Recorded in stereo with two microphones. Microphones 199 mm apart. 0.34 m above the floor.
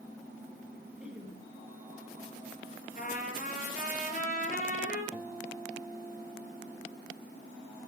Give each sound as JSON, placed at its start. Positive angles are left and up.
{"t": 1.0, "sound": "laughter", "side_deg": -5, "distance_m": 6.0}
{"t": 3.0, "sound": "a trumpet", "side_deg": 40, "distance_m": 7.5}
{"t": 5.1, "sound": "a guitar", "side_deg": 0, "distance_m": 3.0}